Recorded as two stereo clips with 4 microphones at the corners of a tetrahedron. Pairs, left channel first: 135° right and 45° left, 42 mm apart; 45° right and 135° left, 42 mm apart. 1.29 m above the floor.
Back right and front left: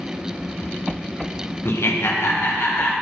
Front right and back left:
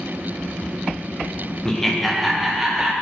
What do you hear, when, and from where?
1.6 s laughter: 120° right, 1.0 m; by 2.9 s 145° right, 1.6 m